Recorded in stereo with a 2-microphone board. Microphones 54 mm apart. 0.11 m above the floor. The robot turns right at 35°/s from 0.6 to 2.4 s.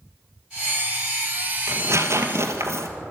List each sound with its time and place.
1.7 s tearing paper: 55° right (ahead or behind), 1.8 m; by 2.9 s 60° right (ahead or behind), 1.8 m